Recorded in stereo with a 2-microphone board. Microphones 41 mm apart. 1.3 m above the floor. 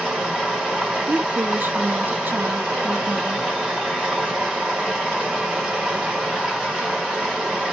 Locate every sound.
0.0 s running water: 15° right (ahead or behind), 1.3 m
1.1 s a woman speaking: 50° right (ahead or behind), 0.5 m